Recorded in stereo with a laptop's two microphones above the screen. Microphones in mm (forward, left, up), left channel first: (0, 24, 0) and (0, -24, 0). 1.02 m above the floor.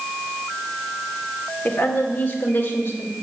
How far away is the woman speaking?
About 1.6 m.